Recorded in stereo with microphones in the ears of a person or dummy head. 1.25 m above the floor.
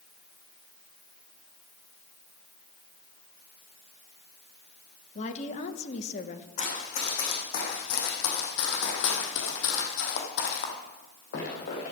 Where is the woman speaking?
35° left (ahead or behind), 1.1 m.